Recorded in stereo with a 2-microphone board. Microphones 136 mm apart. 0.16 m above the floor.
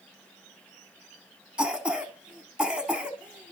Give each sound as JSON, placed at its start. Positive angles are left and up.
{"t": 1.6, "sound": "a cough", "side_deg": -5, "distance_m": 1.0}